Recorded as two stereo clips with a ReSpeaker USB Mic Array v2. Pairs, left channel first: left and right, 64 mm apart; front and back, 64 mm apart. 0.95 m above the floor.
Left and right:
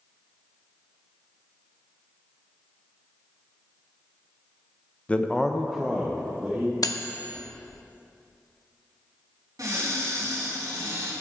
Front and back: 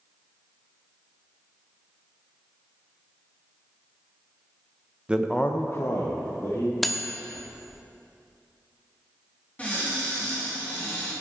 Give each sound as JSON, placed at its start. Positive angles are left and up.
{"t": 5.1, "sound": "a man speaking", "azimuth_deg": 130, "distance_m": 0.7}
{"t": 6.8, "sound": "cutlery clinking", "azimuth_deg": 90, "distance_m": 0.9}
{"t": 9.6, "sound": "a cupboard door", "azimuth_deg": -70, "distance_m": 4.5}